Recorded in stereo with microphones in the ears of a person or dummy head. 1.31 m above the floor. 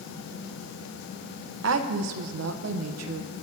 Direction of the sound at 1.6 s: 75° right (ahead or behind).